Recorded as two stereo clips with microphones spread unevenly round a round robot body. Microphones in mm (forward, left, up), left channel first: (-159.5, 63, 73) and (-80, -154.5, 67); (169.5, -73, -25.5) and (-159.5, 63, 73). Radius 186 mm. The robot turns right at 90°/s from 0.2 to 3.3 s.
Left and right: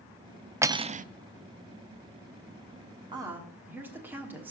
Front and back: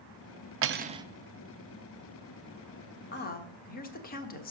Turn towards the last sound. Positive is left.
turn(degrees=5)